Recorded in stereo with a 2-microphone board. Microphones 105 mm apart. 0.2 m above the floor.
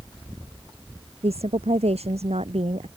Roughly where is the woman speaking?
Right.